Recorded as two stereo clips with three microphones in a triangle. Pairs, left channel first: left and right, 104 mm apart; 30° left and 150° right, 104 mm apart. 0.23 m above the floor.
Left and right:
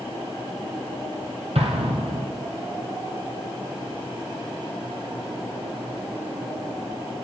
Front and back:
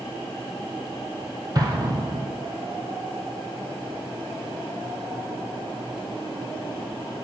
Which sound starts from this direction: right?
An explosion, at 1.6 s.